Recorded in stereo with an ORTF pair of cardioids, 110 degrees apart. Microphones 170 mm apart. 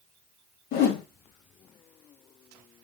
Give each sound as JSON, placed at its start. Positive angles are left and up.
{"t": 0.7, "sound": "a whoosh", "azimuth_deg": 65, "distance_m": 2.0}